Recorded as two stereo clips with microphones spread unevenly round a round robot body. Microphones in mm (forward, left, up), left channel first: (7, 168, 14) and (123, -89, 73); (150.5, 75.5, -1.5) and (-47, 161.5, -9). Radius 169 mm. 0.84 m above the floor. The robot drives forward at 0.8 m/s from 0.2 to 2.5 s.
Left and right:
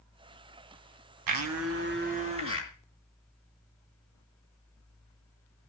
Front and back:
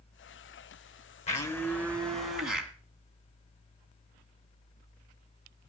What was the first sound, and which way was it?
A blender, 90° right.